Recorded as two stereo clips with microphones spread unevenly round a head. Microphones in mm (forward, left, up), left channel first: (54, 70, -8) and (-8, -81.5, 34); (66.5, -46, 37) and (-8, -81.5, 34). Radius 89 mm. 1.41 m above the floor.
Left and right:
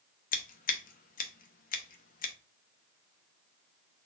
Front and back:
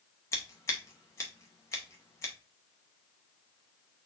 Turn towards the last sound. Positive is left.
turn(degrees=55)